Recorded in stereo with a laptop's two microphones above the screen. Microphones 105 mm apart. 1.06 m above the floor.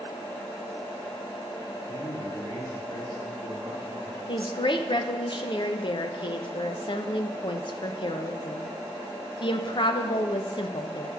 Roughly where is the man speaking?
Left.